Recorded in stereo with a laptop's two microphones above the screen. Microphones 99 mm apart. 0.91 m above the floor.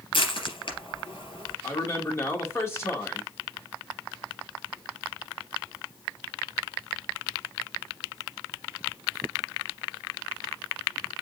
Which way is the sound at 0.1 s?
60° left (ahead or behind).